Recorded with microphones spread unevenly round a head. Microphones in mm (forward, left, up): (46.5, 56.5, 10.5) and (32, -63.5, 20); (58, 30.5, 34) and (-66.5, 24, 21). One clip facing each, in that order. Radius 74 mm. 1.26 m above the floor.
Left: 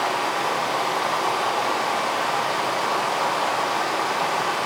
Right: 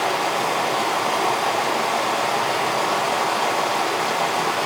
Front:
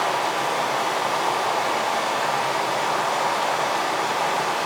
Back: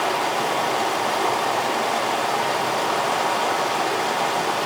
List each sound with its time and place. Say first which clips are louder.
0.0 s running water: right 2 dB, back 1 dB; 135° right, 1.1 m